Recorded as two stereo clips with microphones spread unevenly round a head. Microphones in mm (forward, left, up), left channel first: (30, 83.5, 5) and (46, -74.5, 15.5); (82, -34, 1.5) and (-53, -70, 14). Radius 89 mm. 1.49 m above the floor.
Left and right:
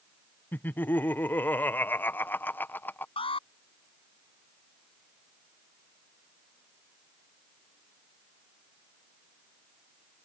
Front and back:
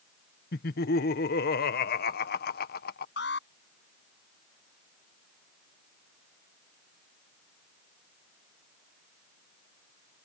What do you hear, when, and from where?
0.5 s laughter: 15° left
3.2 s an alarm: 35° left